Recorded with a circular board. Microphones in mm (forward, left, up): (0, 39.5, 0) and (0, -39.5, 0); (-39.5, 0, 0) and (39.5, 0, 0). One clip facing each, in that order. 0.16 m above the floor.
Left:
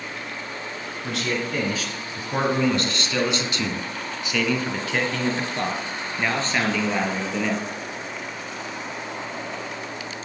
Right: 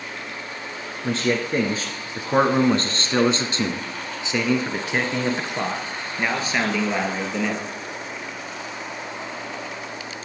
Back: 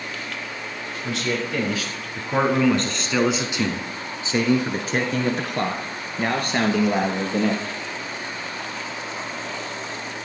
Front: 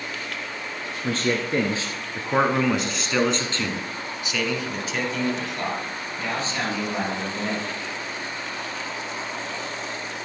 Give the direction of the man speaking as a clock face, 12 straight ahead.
1 o'clock.